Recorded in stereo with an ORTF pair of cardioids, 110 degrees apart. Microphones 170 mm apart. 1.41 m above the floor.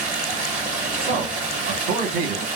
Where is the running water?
45° right, 1.3 m.